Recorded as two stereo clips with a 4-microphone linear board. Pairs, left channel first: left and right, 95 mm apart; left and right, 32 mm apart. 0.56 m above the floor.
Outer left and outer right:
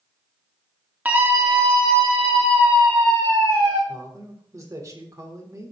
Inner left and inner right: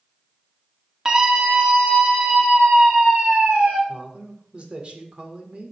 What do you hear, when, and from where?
1.1 s a scream: 15° right (ahead or behind), 1.1 m; by 3.8 s 55° right (ahead or behind), 2.5 m
3.9 s a man speaking: 35° right (ahead or behind), 1.8 m